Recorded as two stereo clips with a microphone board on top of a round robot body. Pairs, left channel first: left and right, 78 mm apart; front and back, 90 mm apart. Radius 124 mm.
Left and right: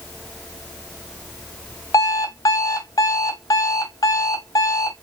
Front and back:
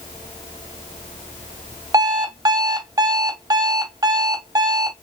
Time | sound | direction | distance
1.9 | an alarm clock | 135° left | 0.8 m